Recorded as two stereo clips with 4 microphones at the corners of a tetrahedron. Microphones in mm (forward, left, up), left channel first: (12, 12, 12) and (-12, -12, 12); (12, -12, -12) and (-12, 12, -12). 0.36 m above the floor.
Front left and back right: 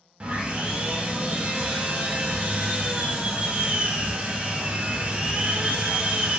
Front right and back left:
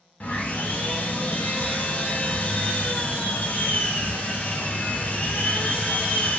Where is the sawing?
80° right, 0.5 m.